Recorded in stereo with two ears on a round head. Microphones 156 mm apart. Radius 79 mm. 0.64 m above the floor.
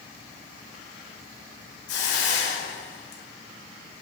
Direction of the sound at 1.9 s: 75° left (ahead or behind).